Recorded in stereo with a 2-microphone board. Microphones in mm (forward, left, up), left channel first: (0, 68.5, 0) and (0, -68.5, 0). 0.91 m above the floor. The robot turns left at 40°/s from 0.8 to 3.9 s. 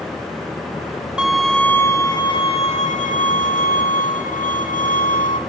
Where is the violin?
175° right, 0.6 m; by 5.4 s 80° left, 0.6 m.